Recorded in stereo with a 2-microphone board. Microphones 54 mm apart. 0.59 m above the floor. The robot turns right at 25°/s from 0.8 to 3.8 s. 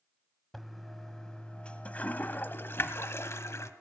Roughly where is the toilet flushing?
Centre.